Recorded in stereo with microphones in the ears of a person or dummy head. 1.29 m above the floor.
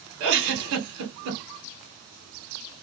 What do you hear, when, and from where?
0.2 s a giggle: 65° right (ahead or behind), 1.3 m